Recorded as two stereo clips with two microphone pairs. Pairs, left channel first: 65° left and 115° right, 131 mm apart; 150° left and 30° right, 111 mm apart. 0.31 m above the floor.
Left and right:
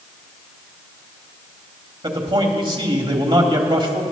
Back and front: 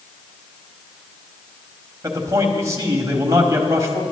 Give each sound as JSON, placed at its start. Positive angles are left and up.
{"t": 2.0, "sound": "a man speaking", "azimuth_deg": -80, "distance_m": 1.3}